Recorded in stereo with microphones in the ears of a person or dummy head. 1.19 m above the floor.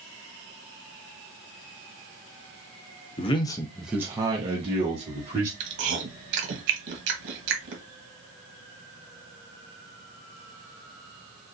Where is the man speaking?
30° left (ahead or behind), 0.7 m; by 5.5 s 35° right (ahead or behind), 1.7 m.